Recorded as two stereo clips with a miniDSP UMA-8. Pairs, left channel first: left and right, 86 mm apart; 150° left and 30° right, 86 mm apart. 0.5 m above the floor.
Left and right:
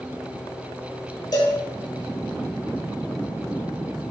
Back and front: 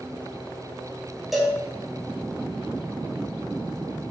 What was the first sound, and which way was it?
A cowbell, 60° left.